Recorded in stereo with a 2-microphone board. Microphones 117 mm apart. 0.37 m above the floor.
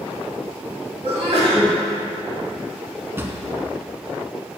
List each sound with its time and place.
1.0 s a sneeze: 55° right (ahead or behind), 2.0 m
3.2 s a drawer: 20° right (ahead or behind), 0.8 m